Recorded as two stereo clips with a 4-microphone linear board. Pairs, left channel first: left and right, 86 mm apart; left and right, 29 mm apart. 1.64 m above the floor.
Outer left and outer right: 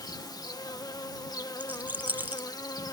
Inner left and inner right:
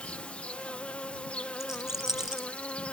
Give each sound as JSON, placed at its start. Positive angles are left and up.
{"t": 0.0, "sound": "an insect", "side_deg": 50}
{"t": 1.6, "sound": "a rattle", "side_deg": -20}